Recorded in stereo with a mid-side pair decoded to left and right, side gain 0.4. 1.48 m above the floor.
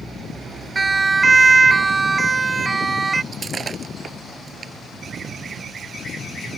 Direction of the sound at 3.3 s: 45° right.